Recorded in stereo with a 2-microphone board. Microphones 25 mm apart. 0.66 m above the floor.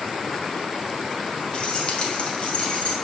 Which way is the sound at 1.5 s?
40° left (ahead or behind).